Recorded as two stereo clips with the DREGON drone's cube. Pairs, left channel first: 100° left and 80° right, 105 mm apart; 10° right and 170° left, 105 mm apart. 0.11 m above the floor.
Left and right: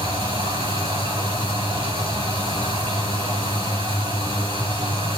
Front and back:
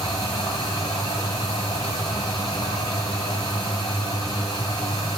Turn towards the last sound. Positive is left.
turn(degrees=-50)